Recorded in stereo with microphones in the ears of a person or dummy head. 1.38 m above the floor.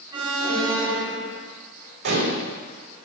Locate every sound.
0.1 s an alarm: 30° right (ahead or behind), 2.5 m
2.0 s dishes clattering: 55° right (ahead or behind), 4.5 m